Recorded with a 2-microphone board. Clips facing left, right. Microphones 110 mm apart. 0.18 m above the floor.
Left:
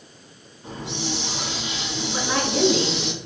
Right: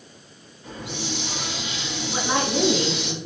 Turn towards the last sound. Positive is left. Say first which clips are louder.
# right 1 dB
turn(degrees=-25)  # may be behind; listen again after turning